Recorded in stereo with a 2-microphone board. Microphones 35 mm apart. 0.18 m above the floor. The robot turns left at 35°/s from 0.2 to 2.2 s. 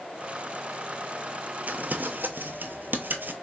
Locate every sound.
1.7 s crumpling: 55° right (ahead or behind), 0.6 m; by 3.3 s 70° right (ahead or behind), 0.6 m